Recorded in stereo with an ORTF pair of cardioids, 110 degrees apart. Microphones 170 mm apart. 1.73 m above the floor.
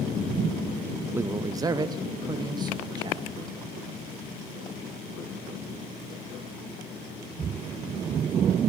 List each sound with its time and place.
1.1 s a man speaking: 15° right, 0.6 m; by 3.2 s 25° right, 3 m